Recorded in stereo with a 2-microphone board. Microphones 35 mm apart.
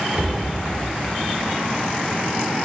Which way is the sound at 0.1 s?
40° right (ahead or behind).